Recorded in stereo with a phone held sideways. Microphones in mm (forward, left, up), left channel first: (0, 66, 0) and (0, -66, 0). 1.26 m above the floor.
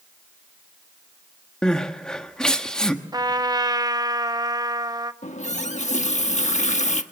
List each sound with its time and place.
1.6 s crying: 5° left (ahead or behind), 1.3 m
3.1 s a trumpet: 30° right (ahead or behind), 0.8 m
5.2 s a running tap: 65° left (ahead or behind), 1.2 m